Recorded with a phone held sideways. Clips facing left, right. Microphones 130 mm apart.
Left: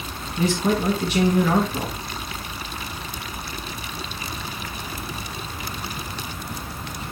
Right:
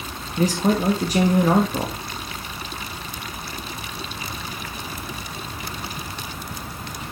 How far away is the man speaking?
About 1.5 m.